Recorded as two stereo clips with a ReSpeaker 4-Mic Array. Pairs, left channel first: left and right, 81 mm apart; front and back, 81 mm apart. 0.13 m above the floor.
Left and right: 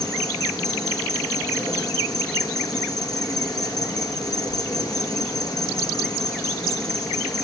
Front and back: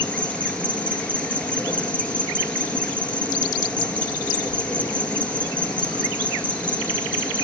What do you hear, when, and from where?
0.0 s an insect: 70° left, 1.4 m